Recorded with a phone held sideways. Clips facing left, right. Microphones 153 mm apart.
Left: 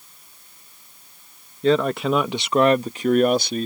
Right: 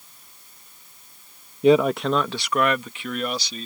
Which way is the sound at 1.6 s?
15° right (ahead or behind).